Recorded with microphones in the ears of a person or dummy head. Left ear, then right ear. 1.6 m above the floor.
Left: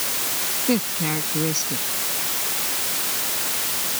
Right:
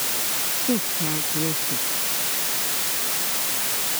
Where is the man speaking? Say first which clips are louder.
Left 4 dB; 80° left.